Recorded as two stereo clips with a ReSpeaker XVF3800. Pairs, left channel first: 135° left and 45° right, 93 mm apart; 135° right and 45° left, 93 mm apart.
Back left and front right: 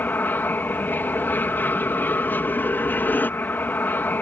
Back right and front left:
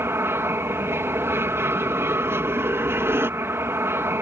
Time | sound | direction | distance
0.0 | an aircraft | 85° left | ?